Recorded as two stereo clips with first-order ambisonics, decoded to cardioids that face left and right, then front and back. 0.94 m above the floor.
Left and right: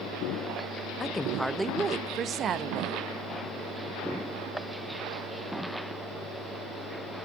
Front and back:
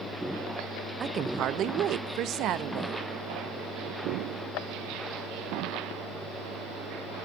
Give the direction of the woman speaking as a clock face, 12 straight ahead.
8 o'clock.